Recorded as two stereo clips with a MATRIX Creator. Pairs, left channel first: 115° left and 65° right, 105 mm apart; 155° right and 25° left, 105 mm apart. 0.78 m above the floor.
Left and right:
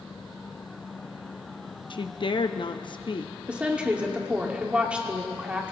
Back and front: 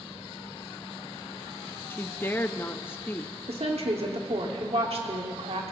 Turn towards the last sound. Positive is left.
turn(degrees=10)